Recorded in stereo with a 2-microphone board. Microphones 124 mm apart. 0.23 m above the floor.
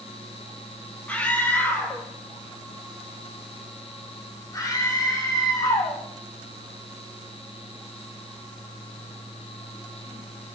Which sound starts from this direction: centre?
A scream, at 1.1 s.